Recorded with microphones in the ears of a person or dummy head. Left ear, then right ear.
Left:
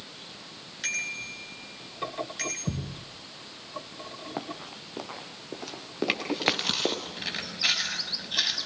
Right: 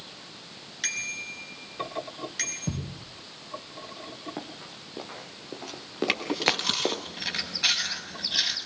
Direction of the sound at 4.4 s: 35° left (ahead or behind).